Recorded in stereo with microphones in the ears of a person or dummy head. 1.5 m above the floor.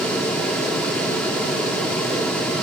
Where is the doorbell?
No doorbell in this recording.